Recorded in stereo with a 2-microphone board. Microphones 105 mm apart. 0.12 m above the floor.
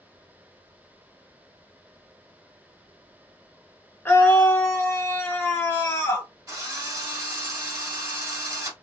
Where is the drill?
30° right (ahead or behind), 1.6 m.